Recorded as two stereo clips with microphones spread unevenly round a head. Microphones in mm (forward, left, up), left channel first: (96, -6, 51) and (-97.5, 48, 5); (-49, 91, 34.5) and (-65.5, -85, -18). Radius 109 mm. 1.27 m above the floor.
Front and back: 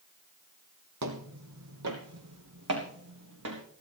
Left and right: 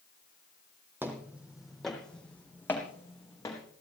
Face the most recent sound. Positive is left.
turn(degrees=150)